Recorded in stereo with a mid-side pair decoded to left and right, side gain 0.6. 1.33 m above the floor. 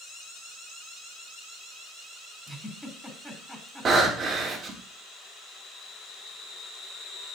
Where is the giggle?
Straight ahead, 4.5 m.